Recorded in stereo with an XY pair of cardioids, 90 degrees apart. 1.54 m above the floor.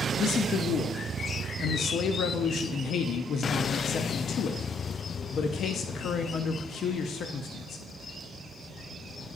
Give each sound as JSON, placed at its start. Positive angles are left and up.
{"t": 0.2, "sound": "a man speaking", "azimuth_deg": 70, "distance_m": 0.5}